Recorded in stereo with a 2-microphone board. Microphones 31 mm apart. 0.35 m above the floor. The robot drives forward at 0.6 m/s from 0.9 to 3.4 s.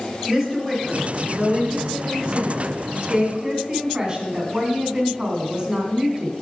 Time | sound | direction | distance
0.3 | a woman speaking | 15° right (ahead or behind) | 3.5 m